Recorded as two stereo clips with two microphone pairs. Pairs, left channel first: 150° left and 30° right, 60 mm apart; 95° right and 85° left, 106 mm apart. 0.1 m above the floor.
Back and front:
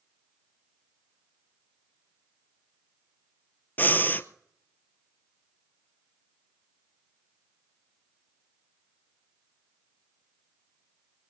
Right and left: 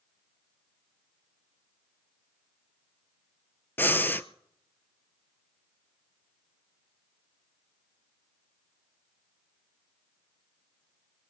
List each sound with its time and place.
3.8 s breathing: 160° right, 0.5 m